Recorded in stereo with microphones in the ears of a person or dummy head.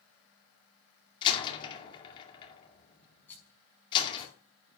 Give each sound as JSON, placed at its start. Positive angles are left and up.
{"t": 1.2, "sound": "a door slam", "side_deg": 30, "distance_m": 2.0}
{"t": 3.3, "sound": "a rattle", "side_deg": 10, "distance_m": 5.0}